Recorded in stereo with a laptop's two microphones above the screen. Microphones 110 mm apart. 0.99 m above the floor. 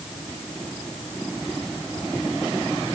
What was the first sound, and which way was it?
Only background noise.